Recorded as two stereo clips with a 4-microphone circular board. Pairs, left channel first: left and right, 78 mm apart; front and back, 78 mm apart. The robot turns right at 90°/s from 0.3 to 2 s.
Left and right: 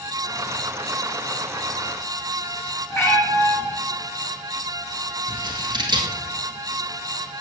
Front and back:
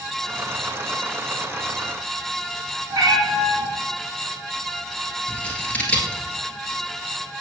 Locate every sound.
2.9 s a cat meowing: 140° left, 1.9 m
5.3 s scissors: 75° right, 1.3 m